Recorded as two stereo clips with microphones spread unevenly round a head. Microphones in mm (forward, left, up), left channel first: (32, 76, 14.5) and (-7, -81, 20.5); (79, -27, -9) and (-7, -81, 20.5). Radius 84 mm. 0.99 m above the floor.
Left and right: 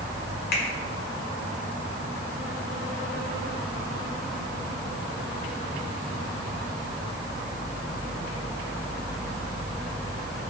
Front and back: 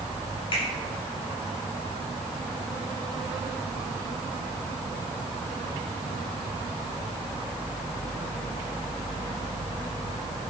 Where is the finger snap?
65° left, 1.8 m.